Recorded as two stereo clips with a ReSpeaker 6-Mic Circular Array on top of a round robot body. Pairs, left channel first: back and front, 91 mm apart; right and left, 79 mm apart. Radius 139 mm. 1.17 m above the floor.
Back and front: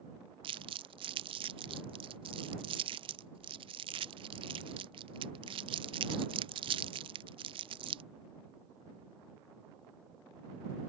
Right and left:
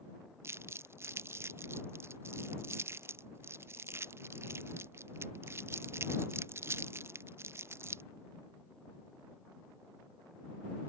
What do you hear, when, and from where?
0.4 s crumpling: 30° left